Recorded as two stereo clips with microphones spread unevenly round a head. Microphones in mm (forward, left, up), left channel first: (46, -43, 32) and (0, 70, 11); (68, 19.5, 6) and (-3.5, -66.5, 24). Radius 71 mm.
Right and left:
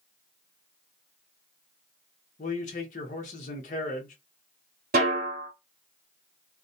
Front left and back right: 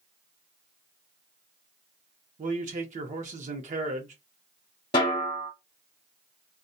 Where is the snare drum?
110° left, 1.0 m.